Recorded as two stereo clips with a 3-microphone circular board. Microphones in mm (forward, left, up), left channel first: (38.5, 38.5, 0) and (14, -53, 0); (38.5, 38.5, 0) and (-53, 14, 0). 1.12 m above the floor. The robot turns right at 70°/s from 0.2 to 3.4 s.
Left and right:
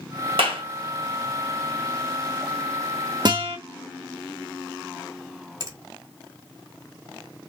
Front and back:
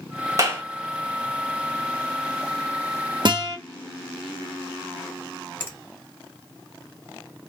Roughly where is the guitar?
Behind right.